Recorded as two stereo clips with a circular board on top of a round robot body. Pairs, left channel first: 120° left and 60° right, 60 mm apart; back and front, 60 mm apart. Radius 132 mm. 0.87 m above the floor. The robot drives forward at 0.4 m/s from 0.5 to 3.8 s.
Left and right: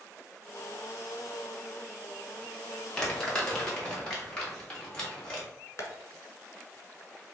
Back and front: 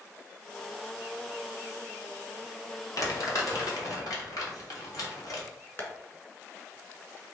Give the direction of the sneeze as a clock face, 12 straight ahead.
I don't hear a sneeze.